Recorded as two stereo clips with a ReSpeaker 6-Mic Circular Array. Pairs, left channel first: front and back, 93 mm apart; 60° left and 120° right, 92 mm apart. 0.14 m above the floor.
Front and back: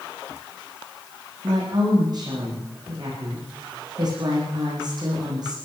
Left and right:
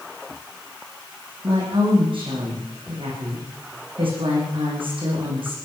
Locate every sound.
1.4 s a woman speaking: 140° right, 9.5 m